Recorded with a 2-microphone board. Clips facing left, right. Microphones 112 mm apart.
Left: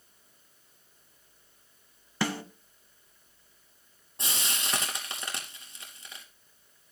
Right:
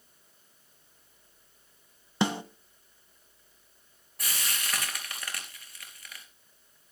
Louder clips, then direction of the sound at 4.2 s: Left 1 dB; 25° left (ahead or behind).